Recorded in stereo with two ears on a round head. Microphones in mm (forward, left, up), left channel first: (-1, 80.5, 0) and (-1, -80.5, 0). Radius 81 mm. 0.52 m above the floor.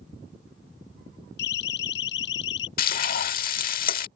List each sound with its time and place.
1.4 s a siren: 65° left (ahead or behind); by 2.7 s 75° left (ahead or behind)
2.8 s frying: 55° left (ahead or behind)